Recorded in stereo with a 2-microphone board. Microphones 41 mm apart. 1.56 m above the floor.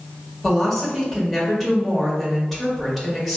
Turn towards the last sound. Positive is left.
turn(degrees=5)  # may be behind; listen again after turning